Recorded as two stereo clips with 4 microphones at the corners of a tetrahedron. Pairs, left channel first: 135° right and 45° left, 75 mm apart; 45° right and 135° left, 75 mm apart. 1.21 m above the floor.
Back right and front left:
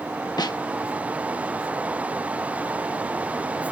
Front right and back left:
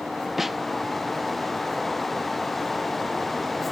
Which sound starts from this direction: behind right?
A snare drum, at 0.4 s.